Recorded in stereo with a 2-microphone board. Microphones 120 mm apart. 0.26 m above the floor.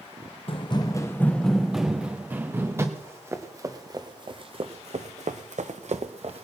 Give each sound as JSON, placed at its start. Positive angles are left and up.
{"t": 0.5, "sound": "running footsteps", "side_deg": 50, "distance_m": 0.7}
{"t": 3.0, "sound": "running footsteps", "side_deg": -20, "distance_m": 1.6}